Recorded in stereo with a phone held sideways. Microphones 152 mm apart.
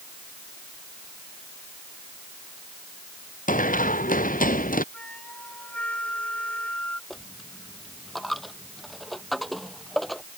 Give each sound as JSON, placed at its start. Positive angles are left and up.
{"t": 3.5, "sound": "running footsteps", "side_deg": 60}
{"t": 4.9, "sound": "a flute", "side_deg": 10}
{"t": 7.1, "sound": "a dropped coin", "side_deg": 0}